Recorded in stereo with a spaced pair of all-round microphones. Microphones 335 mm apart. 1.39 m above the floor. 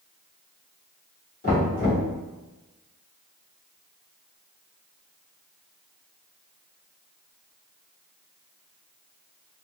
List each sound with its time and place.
1.4 s knocking: 25° left (ahead or behind), 1.8 m